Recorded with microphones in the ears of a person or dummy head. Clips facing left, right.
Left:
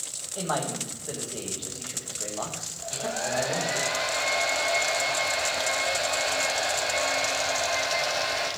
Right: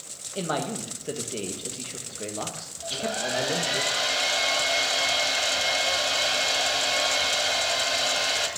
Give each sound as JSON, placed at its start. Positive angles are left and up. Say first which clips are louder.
{"t": 0.3, "sound": "a man speaking", "louder": "right 1 dB", "side_deg": -30, "distance_m": 1.6}
{"t": 2.8, "sound": "a hair dryer", "louder": "right 1 dB", "side_deg": -50, "distance_m": 2.0}